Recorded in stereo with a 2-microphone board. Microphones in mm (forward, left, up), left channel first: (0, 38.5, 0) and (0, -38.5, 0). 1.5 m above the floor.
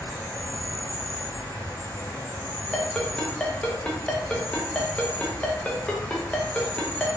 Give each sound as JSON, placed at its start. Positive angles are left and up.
{"t": 0.0, "sound": "an insect", "side_deg": 30, "distance_m": 1.6}
{"t": 2.7, "sound": "a ringtone", "side_deg": 15, "distance_m": 0.6}